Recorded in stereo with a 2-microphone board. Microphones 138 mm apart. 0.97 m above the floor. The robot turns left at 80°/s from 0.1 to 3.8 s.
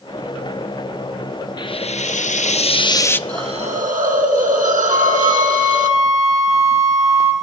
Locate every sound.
1.6 s frying: 145° left, 0.5 m; by 3.2 s 15° left, 0.5 m
3.3 s a hiss: 30° right, 2 m; by 5.9 s 70° right, 2 m
4.9 s a flute: 60° right (ahead or behind), 6.5 m